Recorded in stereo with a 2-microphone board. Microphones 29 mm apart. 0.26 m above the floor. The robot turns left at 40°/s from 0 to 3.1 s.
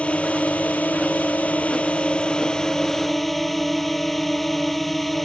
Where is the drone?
130° left; by 5.2 s 5° left.